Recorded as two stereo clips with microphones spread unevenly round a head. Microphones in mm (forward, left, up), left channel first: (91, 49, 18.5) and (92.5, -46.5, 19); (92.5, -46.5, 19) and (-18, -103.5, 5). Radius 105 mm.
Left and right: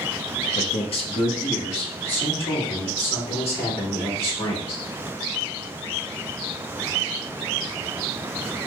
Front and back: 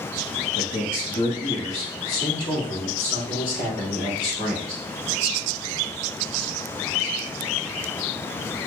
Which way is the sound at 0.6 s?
75° left.